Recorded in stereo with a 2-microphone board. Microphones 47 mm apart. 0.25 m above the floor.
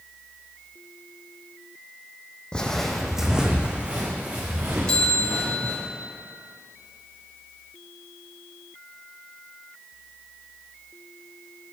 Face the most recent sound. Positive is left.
turn(degrees=20)  # may be behind; listen again after turning